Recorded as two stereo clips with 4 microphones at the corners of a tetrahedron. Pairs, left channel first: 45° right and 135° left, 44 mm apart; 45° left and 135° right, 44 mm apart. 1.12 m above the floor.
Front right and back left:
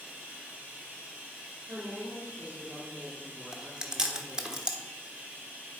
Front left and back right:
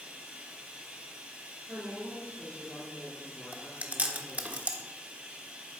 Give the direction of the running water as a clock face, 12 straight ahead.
6 o'clock.